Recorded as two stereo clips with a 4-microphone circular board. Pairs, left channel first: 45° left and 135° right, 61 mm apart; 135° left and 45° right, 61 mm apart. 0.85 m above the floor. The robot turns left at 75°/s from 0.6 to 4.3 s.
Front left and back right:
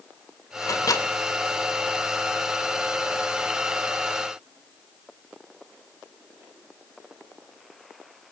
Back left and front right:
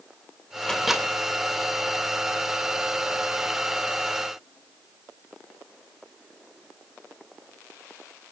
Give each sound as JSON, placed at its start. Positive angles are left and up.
{"t": 0.6, "sound": "a microwave", "azimuth_deg": 60, "distance_m": 3.0}